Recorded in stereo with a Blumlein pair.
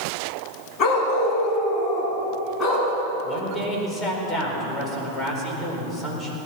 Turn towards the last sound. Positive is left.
turn(degrees=15)